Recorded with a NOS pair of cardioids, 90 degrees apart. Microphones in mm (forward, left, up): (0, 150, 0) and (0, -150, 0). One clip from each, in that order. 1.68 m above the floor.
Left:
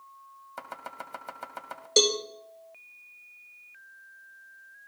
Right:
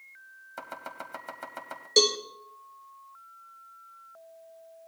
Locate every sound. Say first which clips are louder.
0.6 s chopping: even; straight ahead, 2 m
2.0 s a cowbell: even; 10° left, 2 m